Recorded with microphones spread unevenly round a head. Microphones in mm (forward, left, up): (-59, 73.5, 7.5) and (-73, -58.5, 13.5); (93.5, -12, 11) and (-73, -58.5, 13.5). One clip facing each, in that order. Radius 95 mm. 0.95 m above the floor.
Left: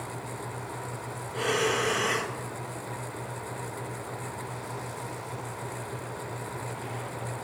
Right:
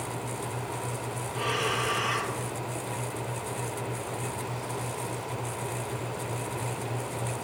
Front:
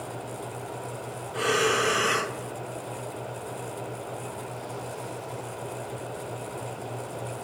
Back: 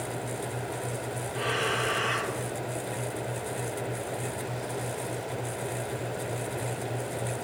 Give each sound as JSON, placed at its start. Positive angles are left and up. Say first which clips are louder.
{"t": 1.3, "sound": "breathing", "louder": "left 4 dB, front 7 dB", "azimuth_deg": 45, "distance_m": 1.1}